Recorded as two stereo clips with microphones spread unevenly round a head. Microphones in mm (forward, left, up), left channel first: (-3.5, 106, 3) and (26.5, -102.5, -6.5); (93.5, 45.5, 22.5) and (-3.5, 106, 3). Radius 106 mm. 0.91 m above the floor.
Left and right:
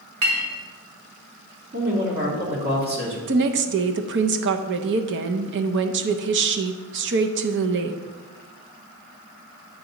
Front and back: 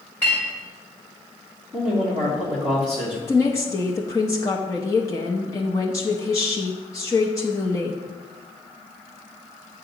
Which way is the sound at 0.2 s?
115° right.